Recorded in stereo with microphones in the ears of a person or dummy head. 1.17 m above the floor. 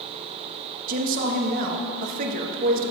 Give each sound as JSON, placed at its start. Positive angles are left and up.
{"t": 0.9, "sound": "a woman speaking", "side_deg": -45, "distance_m": 1.5}